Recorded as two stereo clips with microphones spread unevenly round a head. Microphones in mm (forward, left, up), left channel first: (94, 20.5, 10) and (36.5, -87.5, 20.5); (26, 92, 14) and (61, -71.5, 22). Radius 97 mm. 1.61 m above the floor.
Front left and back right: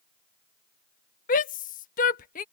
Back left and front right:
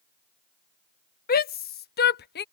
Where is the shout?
70° left; by 2.4 s 80° left.